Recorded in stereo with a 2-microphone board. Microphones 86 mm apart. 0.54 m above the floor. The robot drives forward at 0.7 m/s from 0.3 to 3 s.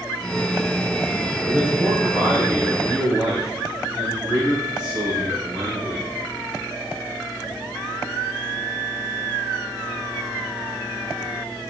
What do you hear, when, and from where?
1.4 s a man speaking: 30° right (ahead or behind), 2.5 m; by 6.0 s 20° right (ahead or behind), 3 m